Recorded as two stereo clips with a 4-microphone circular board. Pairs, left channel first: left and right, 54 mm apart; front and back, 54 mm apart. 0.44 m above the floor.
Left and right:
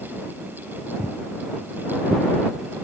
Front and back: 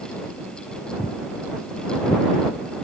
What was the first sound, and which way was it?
Footsteps, 25° right.